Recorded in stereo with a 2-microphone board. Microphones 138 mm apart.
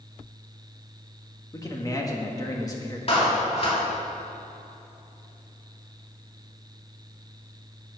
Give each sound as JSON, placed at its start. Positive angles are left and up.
{"t": 1.5, "sound": "a man speaking", "side_deg": 25, "distance_m": 1.8}
{"t": 3.1, "sound": "a clap", "side_deg": 45, "distance_m": 2.5}